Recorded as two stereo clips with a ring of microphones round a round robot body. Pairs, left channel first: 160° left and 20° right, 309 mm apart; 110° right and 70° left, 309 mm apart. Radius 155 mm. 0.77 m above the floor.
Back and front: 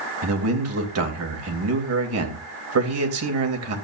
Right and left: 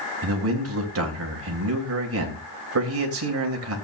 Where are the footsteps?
I don't hear footsteps.